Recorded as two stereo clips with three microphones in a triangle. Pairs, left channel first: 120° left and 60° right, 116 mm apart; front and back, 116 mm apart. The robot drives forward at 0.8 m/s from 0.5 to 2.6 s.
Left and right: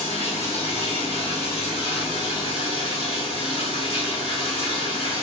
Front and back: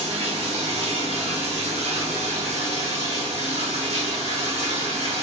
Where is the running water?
150° left, 4 m; by 5.2 s 160° left, 5 m.